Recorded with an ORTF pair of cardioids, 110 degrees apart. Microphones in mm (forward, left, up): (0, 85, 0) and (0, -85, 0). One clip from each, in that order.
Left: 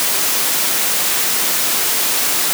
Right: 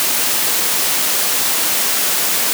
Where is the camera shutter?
No camera shutter in this recording.